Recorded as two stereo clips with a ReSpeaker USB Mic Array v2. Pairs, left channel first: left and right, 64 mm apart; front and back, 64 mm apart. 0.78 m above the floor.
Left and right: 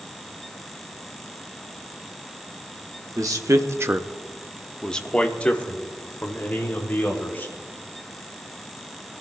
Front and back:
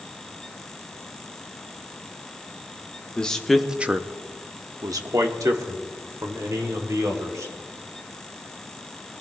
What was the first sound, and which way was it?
A man speaking, 70° right.